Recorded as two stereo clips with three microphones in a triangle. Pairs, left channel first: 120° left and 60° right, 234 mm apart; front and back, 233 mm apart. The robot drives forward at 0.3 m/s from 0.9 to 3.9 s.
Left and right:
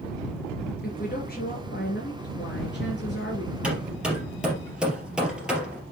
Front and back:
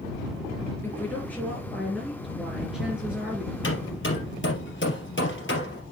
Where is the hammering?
25° left, 3 m.